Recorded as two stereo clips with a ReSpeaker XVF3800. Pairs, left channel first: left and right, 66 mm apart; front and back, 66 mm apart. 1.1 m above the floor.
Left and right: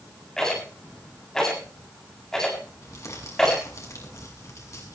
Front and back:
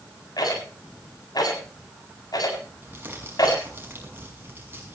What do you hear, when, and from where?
0.4 s a rattle: 10° left, 7.5 m
2.8 s crumpling: 125° left, 6 m